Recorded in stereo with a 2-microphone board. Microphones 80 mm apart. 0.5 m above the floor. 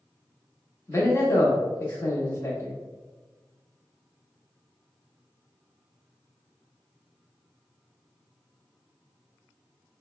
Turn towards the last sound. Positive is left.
turn(degrees=35)  # may be behind; listen again after turning